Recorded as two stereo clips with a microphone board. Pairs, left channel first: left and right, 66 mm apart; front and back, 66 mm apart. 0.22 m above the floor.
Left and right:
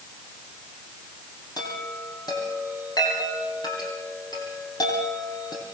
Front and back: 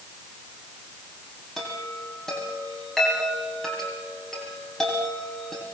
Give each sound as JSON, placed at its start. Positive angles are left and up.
{"t": 1.6, "sound": "a chime", "azimuth_deg": 80, "distance_m": 7.0}